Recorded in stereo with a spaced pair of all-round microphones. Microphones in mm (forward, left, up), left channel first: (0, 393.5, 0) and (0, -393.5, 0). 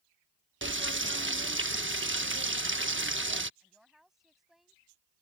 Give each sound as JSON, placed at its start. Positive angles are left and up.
{"t": 0.6, "sound": "frying", "side_deg": -15}
{"t": 3.6, "sound": "a woman speaking", "side_deg": 0}